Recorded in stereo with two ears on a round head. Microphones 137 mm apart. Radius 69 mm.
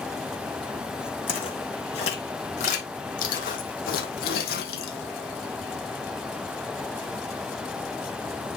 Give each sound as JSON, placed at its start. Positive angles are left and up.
{"t": 1.3, "sound": "footsteps", "side_deg": 35, "distance_m": 3.0}